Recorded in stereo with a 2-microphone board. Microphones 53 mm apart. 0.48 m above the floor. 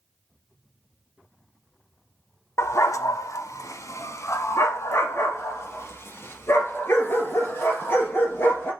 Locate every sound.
2.6 s a dog barking: 60° left (ahead or behind), 0.8 m; by 8.7 s 40° left (ahead or behind), 3.5 m